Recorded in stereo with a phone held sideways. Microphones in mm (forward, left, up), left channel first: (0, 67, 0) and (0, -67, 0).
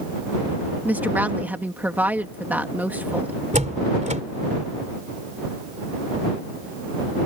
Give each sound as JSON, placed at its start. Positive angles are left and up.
{"t": 0.8, "sound": "a woman speaking", "side_deg": -15}
{"t": 3.5, "sound": "a door slam", "side_deg": -60}